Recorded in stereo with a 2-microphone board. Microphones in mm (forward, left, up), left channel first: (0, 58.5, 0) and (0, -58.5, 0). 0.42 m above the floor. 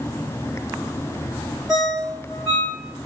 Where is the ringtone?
5° right (ahead or behind), 1.7 m.